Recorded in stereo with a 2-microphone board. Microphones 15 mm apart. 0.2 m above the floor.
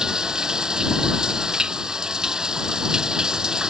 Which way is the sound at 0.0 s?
40° right (ahead or behind).